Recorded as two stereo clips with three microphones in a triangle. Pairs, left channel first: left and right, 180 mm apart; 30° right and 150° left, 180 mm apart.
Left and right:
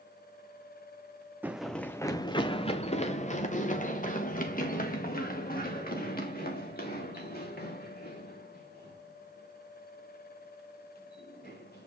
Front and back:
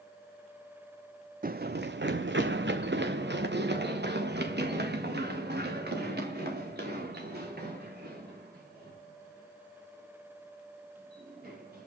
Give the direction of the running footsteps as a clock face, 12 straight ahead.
6 o'clock.